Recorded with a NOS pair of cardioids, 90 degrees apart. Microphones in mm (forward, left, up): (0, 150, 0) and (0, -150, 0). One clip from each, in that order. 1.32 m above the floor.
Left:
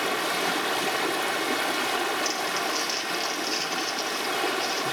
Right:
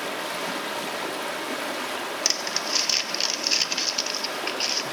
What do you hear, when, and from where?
0.0 s running water: 20° left, 1.0 m
2.2 s crumpling: 55° right, 1.0 m